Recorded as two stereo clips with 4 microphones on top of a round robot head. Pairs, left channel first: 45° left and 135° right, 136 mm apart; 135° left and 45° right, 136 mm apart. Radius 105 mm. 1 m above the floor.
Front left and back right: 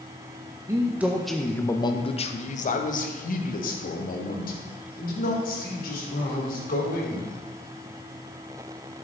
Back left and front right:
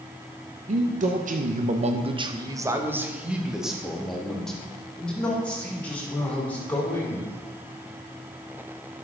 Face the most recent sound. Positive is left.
turn(degrees=60)